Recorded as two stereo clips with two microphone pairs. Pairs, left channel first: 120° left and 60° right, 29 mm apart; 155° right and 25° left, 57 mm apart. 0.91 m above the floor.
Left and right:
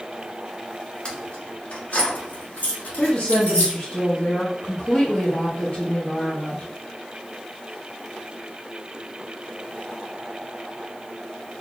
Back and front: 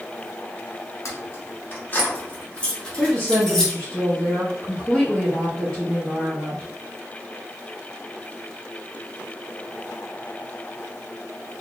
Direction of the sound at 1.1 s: 175° left.